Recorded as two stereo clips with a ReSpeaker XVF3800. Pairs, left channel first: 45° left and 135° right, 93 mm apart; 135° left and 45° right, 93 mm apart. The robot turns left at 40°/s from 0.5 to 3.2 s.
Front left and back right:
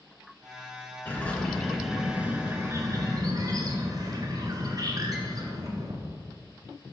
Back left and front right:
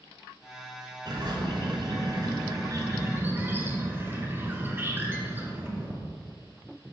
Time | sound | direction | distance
1.1 | a bird | 20° right | 1.5 m